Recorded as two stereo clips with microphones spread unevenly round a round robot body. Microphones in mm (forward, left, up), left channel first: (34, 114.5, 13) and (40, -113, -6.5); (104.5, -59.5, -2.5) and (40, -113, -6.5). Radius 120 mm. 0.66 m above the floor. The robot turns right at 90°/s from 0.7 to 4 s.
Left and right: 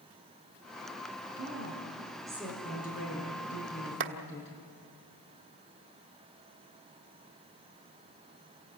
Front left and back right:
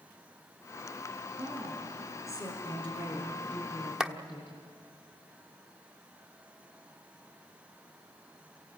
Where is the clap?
60° right, 1.2 m.